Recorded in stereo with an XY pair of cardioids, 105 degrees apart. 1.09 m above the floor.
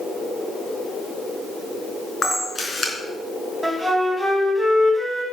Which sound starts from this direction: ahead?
A flute, at 3.6 s.